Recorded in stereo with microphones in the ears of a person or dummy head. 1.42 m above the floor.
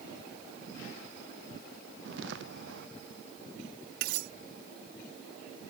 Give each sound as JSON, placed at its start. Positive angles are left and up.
{"t": 2.0, "sound": "footsteps", "side_deg": -80}
{"t": 4.0, "sound": "cutlery clinking", "side_deg": -65}